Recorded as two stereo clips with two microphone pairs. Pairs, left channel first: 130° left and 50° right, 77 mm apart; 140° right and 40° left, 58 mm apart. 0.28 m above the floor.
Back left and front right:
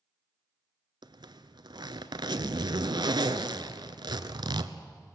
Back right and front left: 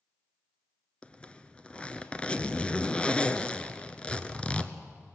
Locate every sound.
1.0 s a zipper: 65° right, 0.9 m